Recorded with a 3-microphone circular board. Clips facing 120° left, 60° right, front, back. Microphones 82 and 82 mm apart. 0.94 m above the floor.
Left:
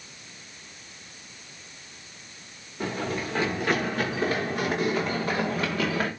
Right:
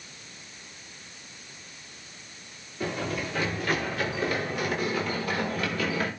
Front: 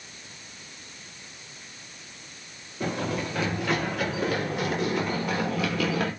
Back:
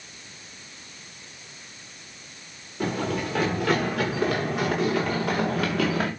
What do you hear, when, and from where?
2.8 s running footsteps: 175° left, 8 m